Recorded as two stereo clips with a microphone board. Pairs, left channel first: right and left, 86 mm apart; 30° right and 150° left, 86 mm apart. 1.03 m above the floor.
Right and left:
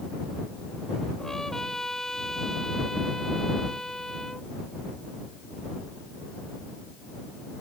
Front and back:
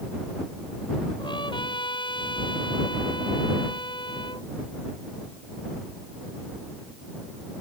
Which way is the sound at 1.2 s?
5° right.